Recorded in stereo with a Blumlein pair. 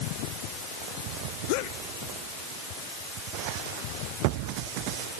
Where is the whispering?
No whispering in this recording.